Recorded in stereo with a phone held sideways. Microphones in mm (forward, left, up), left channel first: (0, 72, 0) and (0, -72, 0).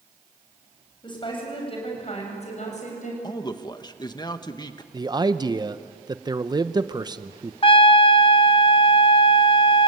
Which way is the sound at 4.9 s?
25° right (ahead or behind).